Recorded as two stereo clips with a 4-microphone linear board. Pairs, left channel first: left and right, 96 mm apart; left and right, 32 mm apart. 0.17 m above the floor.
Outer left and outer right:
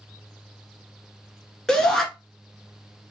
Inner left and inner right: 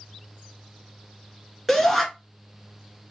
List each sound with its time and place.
1.7 s a shout: 5° left (ahead or behind), 1.8 m